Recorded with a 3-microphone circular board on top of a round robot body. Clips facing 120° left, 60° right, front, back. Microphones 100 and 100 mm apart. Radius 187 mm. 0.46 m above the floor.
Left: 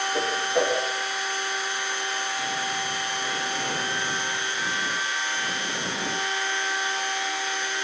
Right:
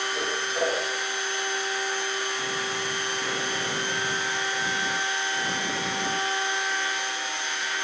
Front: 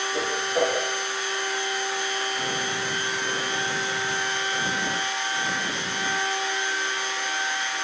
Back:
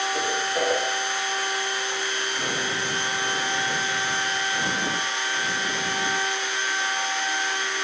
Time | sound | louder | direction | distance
0.1 | a whoosh | left 5 dB, front 1 dB | 75° left | 10 m